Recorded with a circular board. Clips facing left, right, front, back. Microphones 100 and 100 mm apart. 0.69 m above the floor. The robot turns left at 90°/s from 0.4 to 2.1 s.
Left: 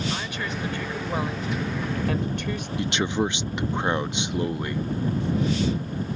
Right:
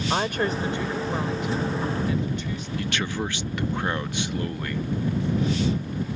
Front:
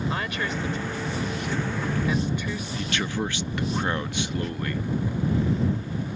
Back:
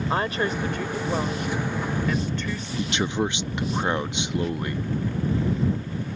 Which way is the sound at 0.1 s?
125° right.